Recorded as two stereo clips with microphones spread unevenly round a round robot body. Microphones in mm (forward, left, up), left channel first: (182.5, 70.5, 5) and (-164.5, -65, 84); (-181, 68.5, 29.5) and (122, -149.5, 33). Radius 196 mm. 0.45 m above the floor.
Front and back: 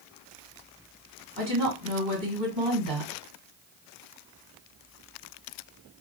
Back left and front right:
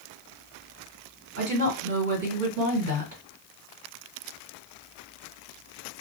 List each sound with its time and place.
1.4 s a woman speaking: 80° right, 2.0 m